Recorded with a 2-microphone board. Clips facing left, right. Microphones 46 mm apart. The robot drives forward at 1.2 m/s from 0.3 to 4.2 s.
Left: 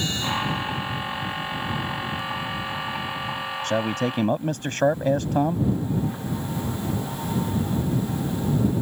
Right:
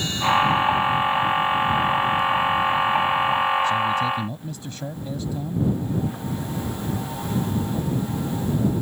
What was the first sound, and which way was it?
A man speaking, 65° left (ahead or behind).